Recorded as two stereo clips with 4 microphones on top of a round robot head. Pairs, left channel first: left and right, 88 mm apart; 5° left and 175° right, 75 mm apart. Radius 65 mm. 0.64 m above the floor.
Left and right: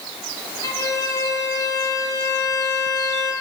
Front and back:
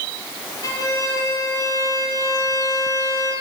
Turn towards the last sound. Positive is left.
turn(degrees=40)